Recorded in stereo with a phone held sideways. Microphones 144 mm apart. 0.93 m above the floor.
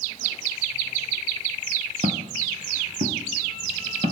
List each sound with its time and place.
2.0 s footsteps: 60° right (ahead or behind), 2.0 m; by 4.1 s 70° right (ahead or behind), 3 m